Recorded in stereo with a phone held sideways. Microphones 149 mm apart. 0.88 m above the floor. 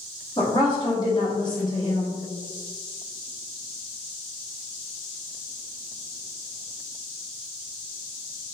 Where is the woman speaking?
30° left (ahead or behind), 1.7 m.